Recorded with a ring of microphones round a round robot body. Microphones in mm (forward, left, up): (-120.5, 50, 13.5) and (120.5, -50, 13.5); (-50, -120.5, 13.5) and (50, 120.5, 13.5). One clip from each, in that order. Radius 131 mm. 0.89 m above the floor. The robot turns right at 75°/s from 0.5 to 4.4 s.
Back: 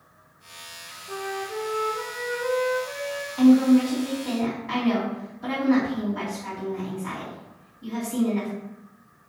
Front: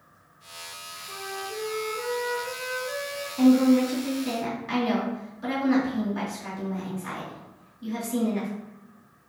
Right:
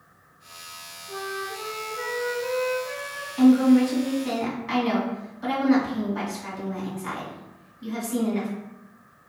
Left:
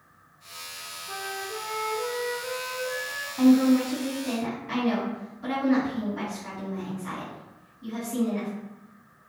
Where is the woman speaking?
160° right, 2.0 m; by 8.5 s 80° right, 2.0 m.